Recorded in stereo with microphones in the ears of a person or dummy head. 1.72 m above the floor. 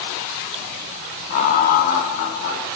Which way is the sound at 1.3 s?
45° left (ahead or behind).